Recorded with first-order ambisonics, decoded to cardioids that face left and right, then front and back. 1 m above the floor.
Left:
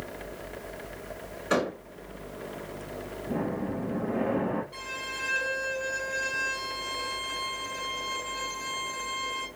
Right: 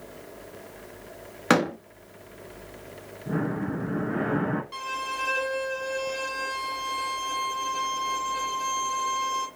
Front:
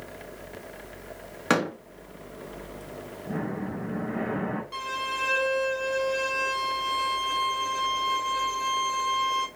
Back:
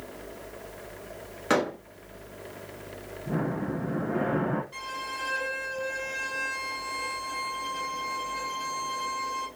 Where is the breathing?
95° right, 2 m.